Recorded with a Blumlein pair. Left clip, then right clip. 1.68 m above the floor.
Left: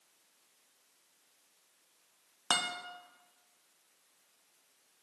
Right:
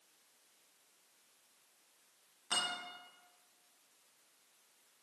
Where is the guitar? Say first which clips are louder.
Left 4 dB; 50° left, 0.9 m.